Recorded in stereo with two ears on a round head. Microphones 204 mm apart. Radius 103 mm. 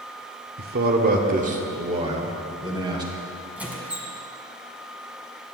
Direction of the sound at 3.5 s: 5° right (ahead or behind).